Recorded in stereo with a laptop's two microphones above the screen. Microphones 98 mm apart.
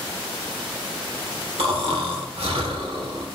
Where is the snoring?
75° right (ahead or behind), 1.4 m.